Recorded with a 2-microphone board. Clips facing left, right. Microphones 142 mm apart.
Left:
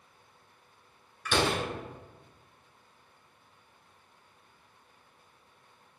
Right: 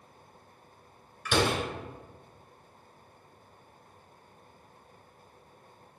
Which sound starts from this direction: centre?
A door slam, at 1.2 s.